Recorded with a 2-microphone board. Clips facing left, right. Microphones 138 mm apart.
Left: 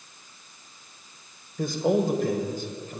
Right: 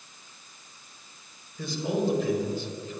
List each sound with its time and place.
1.6 s a man speaking: 50° left (ahead or behind), 2 m